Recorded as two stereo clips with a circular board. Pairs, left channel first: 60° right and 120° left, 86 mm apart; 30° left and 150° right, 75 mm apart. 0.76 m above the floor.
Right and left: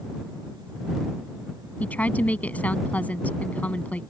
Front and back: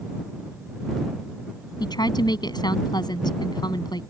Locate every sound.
1.8 s a woman speaking: 15° left